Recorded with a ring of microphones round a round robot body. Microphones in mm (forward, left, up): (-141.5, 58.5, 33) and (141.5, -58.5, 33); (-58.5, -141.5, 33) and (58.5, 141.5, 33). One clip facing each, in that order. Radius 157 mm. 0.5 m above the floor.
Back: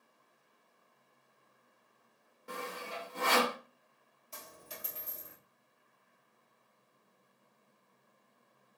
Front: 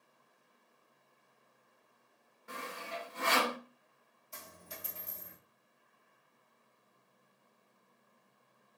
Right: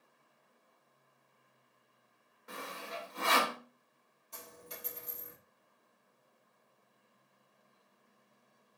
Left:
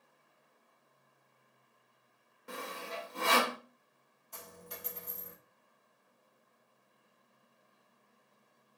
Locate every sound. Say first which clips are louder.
2.5 s sawing: back 3 dB, left 2 dB; 115° left, 0.9 m
4.3 s a dropped coin: back 1 dB, left 1 dB; 175° right, 1.5 m